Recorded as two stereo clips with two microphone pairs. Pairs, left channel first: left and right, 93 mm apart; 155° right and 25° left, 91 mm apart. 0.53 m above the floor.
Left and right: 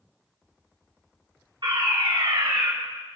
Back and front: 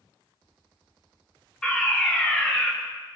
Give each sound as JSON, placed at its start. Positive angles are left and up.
{"t": 1.6, "sound": "a fire alarm", "azimuth_deg": -75, "distance_m": 4.5}